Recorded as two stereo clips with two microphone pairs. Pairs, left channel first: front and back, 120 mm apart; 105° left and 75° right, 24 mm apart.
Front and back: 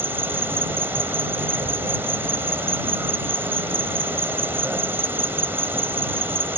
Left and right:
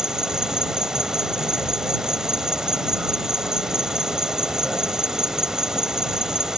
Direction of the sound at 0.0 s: 115° right.